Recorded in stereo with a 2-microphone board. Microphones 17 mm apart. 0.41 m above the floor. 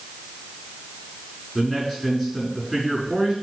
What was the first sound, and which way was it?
A man speaking, 15° left (ahead or behind).